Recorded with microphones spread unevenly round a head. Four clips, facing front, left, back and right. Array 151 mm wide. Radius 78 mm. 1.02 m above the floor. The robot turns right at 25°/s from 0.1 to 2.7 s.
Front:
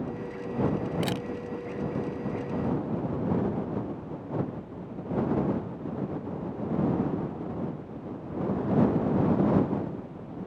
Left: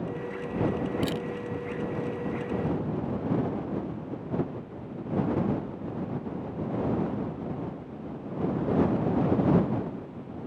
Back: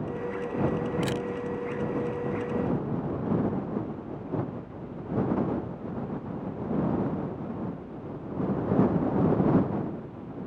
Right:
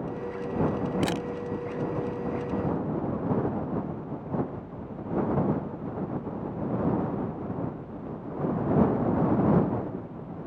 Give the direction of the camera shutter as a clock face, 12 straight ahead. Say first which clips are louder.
Right 2 dB, back 1 dB; 2 o'clock.